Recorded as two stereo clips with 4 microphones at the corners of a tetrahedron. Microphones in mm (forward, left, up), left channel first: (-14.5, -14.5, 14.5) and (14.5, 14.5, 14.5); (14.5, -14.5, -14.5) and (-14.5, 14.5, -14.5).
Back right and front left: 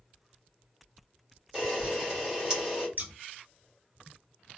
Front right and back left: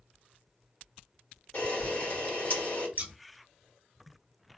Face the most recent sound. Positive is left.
turn(degrees=85)